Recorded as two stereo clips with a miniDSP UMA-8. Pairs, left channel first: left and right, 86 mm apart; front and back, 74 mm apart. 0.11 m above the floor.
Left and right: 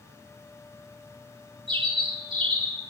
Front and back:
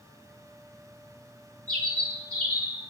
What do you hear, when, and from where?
1.7 s a bird: 70° right, 8 m